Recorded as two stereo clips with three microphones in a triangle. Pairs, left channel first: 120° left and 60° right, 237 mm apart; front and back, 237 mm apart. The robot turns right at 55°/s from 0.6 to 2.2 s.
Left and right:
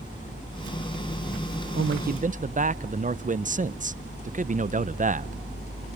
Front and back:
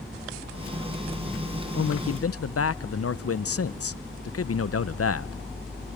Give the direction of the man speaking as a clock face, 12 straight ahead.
1 o'clock.